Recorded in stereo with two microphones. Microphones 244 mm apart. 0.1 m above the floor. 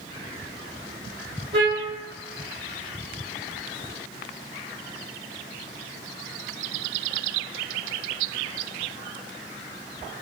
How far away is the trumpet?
About 3.5 m.